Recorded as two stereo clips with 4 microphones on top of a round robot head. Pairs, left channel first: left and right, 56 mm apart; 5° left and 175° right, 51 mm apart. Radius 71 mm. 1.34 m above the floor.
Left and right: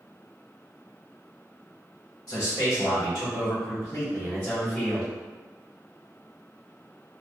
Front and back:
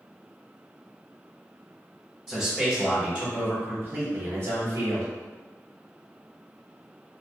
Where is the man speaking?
105° left, 1.6 m; by 5.1 s 165° left, 1.5 m.